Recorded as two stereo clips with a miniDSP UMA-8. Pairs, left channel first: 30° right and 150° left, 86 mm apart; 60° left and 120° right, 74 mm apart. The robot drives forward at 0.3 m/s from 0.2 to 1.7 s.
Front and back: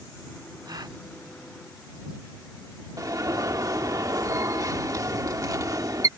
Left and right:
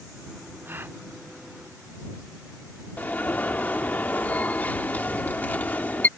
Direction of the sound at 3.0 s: 120° left.